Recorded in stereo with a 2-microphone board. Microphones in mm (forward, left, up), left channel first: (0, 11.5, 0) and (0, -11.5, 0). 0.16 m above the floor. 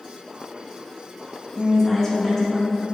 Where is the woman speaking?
20° left (ahead or behind), 1.1 m; by 2.9 s 25° left (ahead or behind), 1.3 m.